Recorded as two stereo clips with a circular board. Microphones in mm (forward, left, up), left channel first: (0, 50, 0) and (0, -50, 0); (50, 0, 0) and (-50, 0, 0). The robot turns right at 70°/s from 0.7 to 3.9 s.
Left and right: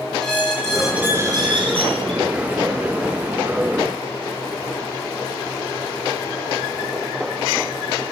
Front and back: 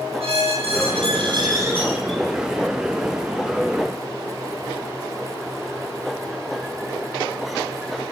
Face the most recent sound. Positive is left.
turn(degrees=40)